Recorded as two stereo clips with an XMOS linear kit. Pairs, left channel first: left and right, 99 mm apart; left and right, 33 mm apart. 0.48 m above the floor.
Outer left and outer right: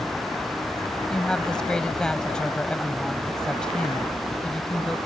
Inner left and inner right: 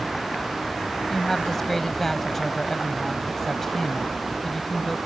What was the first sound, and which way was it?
A woman speaking, 10° left (ahead or behind).